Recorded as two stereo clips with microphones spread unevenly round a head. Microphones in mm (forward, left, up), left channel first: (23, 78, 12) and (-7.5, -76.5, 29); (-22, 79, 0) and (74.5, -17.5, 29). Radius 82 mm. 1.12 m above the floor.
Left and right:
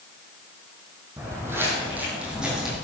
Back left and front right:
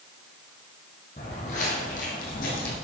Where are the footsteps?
170° right, 3 m; by 2.8 s 175° left, 3.5 m.